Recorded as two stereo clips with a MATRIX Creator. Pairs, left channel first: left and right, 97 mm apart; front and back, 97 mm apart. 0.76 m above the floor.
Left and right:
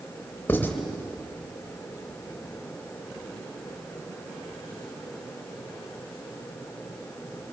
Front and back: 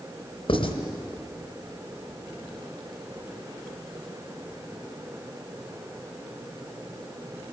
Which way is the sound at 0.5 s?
20° left.